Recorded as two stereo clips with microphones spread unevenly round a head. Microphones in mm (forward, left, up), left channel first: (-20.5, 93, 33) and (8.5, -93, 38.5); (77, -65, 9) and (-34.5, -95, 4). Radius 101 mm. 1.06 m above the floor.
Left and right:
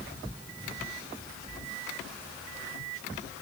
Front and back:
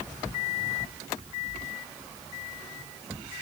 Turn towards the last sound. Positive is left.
No sound to turn to.